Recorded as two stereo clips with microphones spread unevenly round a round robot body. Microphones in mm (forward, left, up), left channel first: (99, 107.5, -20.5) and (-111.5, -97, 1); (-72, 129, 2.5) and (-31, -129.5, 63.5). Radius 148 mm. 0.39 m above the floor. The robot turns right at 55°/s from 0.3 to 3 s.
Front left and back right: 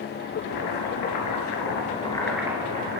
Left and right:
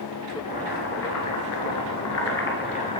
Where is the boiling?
30° left, 4.5 m; by 3.0 s 170° left, 4.5 m.